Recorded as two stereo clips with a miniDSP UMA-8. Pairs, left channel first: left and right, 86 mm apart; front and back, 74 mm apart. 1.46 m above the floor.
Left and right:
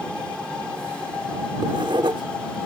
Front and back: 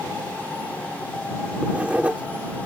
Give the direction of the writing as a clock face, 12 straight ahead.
4 o'clock.